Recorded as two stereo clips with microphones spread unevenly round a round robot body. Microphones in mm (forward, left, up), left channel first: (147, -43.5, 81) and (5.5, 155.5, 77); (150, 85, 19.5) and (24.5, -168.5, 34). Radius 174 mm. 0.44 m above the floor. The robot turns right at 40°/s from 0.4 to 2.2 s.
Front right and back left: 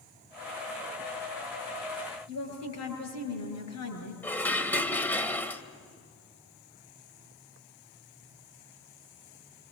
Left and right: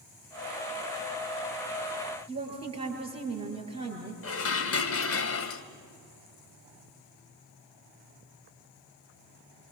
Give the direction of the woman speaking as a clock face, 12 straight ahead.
2 o'clock.